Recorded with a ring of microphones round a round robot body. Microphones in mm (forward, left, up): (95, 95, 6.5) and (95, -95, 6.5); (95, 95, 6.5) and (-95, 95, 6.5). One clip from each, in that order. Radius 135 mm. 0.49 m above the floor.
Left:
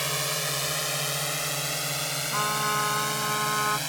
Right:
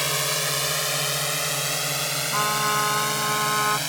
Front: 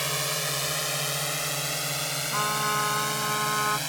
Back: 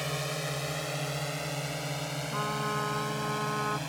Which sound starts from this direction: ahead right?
A drone, at 0.0 s.